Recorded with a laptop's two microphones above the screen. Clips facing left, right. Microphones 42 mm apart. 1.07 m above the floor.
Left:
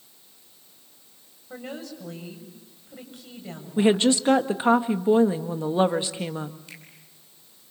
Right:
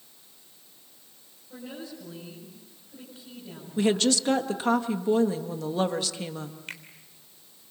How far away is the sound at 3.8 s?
About 1.6 m.